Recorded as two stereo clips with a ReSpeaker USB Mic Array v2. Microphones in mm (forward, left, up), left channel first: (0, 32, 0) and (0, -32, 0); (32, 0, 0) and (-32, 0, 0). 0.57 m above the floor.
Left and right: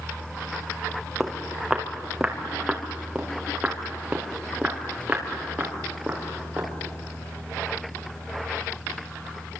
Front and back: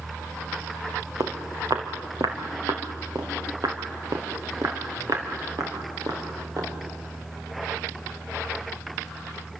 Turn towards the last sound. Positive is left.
turn(degrees=-160)